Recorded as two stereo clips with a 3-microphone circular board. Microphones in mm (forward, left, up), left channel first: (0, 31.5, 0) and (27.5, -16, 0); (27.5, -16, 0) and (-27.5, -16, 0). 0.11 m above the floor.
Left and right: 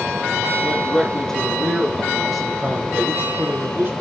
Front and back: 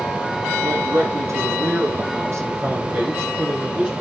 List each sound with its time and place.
0.6 s a man speaking: 170° right, 5 m; by 3.9 s 115° right, 4 m